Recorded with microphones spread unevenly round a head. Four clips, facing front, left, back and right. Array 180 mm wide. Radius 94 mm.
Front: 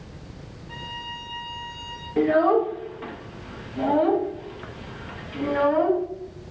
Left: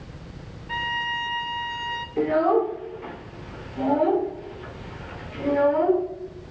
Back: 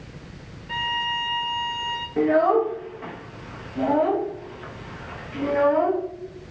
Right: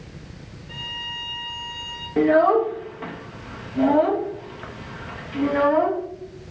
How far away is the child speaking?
About 1.4 m.